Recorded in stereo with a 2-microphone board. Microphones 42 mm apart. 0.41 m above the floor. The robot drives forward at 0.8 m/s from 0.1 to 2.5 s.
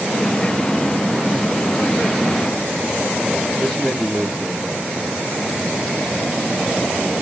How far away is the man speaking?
About 7.5 m.